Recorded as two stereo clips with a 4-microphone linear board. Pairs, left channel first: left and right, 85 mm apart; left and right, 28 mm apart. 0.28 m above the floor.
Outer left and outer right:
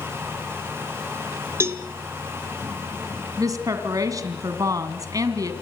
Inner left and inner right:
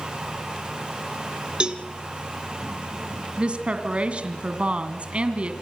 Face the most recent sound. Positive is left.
turn(degrees=-45)  # may be behind; listen again after turning